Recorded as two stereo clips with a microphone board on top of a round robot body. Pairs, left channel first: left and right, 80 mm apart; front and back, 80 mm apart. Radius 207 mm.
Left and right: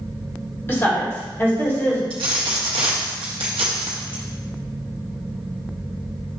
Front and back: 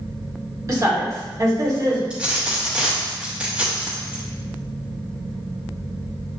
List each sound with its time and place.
0.7 s a woman speaking: 145° left, 1.9 m
2.1 s a dropped coin: 100° right, 0.9 m